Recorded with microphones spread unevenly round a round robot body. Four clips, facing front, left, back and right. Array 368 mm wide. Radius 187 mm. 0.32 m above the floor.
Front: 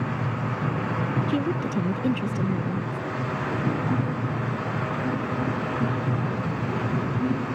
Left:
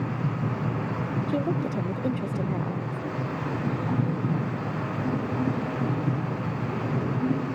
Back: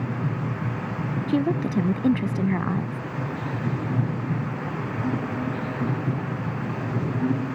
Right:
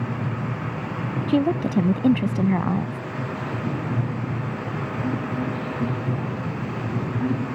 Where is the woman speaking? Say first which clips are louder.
Right 8 dB, back 7 dB; 110° right.